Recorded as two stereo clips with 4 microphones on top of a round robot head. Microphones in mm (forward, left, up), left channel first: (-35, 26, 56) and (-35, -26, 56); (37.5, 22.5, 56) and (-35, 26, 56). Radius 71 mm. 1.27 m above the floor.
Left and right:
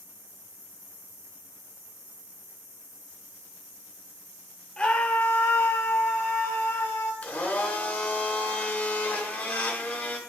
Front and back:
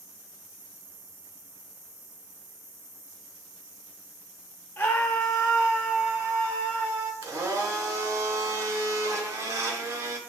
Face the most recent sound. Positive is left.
turn(degrees=145)